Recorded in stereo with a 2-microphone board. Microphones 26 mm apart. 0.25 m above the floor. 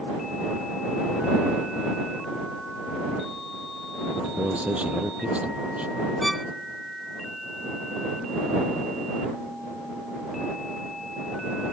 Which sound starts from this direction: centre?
A violin, at 6.2 s.